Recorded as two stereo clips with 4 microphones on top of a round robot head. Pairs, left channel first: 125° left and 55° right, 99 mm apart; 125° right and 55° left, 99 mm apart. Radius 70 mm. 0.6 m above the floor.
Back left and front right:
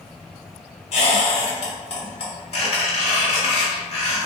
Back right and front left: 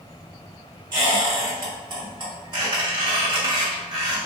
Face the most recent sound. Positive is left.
turn(degrees=100)